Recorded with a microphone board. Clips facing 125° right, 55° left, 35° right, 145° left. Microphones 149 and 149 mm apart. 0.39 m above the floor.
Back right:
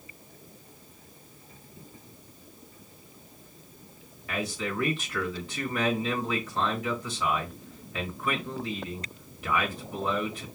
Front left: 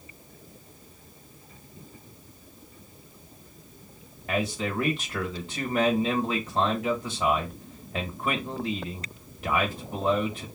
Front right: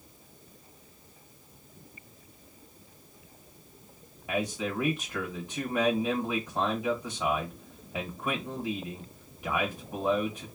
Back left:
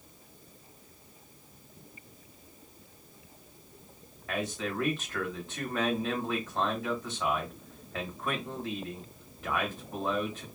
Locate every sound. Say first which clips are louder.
4.3 s a man speaking: front left 4 dB, front right 3 dB; 35° left, 1.1 m